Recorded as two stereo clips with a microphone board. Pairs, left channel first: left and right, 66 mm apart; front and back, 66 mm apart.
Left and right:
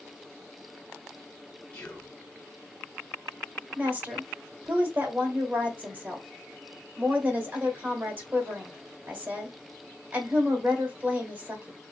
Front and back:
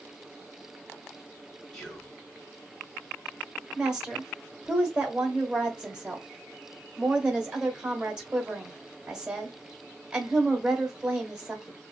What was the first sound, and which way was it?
Whispering, 65° left.